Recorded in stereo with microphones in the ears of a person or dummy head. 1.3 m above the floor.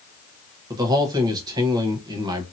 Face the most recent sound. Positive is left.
turn(degrees=-25)  # may be behind; listen again after turning